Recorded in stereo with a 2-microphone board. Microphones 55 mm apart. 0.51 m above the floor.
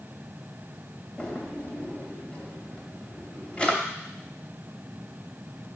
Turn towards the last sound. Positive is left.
turn(degrees=20)  # may be behind; listen again after turning